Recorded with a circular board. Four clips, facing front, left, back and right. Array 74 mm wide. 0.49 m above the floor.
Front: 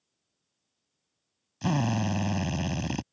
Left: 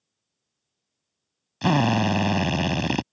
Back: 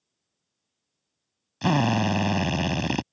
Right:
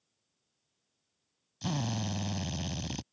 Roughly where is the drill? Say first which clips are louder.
Left 15 dB, back 6 dB; behind left.